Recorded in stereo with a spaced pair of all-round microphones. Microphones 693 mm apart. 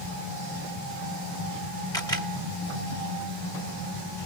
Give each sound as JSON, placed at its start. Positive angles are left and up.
{"t": 1.9, "sound": "a camera shutter", "side_deg": 5, "distance_m": 1.3}